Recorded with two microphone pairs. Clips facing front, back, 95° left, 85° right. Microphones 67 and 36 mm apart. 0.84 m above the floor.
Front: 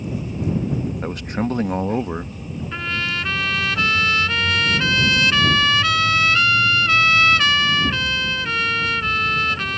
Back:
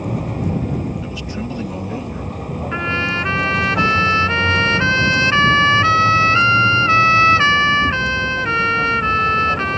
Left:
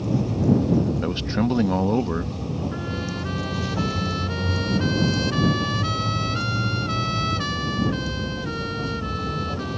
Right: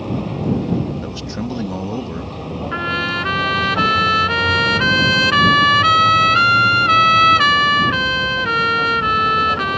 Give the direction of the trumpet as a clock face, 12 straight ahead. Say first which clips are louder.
Back 5 dB, right 9 dB; 4 o'clock.